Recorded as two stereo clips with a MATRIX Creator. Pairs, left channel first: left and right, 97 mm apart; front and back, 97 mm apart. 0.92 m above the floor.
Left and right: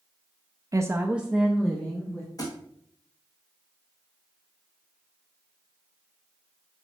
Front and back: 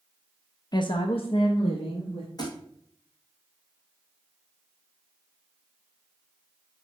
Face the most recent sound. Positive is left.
turn(degrees=45)